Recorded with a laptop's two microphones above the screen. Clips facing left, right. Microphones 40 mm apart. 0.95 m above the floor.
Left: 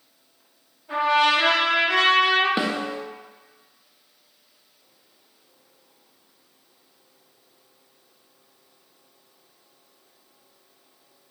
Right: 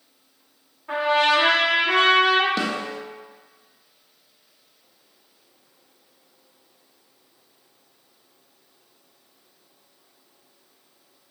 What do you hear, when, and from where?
0.9 s a trumpet: 85° right, 1.6 m
2.6 s a snare drum: 25° left (ahead or behind), 0.5 m